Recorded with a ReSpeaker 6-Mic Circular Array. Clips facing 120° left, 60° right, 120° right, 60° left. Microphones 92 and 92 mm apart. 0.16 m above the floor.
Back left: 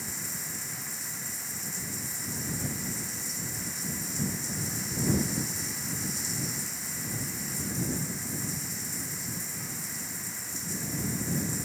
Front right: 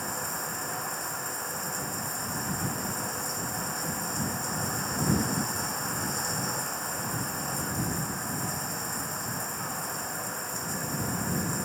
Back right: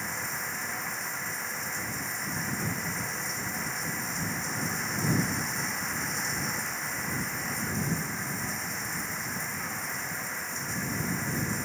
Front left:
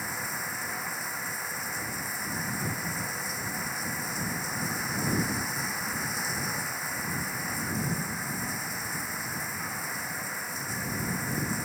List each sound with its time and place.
0.0 s running water: 25° right